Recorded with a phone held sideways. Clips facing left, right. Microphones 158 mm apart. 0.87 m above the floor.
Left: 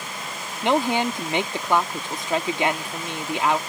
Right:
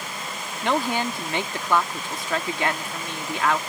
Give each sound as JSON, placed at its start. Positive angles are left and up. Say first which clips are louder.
{"t": 0.6, "sound": "a woman speaking", "louder": "left 3 dB", "side_deg": 20}